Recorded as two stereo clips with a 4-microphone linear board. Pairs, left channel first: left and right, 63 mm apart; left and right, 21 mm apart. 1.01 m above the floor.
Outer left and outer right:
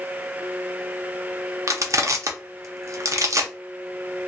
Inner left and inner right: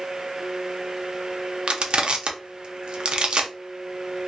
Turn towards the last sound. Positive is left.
turn(degrees=-55)  # may be behind; listen again after turning